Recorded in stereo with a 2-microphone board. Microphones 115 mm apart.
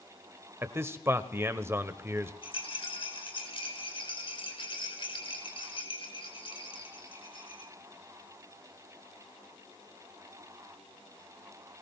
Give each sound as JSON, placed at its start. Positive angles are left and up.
{"t": 0.6, "sound": "a man speaking", "side_deg": -20, "distance_m": 1.0}
{"t": 2.4, "sound": "a rattle", "side_deg": 55, "distance_m": 5.0}